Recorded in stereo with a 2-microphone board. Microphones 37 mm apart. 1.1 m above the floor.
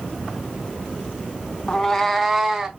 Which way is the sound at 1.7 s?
25° left (ahead or behind).